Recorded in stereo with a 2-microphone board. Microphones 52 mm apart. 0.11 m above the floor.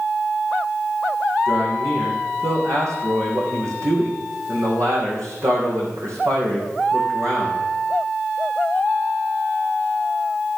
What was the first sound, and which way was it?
A man speaking, 75° right (ahead or behind).